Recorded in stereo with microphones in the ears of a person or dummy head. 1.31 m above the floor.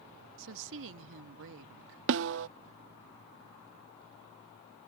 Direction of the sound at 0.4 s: 65° right (ahead or behind).